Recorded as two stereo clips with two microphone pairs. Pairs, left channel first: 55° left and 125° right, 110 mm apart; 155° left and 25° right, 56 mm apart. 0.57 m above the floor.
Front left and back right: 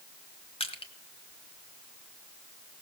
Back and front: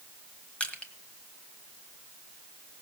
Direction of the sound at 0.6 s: 85° left.